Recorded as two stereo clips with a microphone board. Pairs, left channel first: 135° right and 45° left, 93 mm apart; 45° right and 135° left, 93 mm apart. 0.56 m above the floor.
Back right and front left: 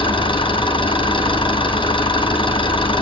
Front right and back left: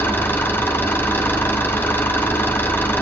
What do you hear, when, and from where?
0.0 s an engine running: 110° right, 4 m